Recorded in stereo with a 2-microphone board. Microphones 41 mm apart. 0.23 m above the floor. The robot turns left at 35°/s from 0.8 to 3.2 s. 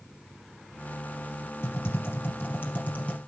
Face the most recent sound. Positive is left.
turn(degrees=35)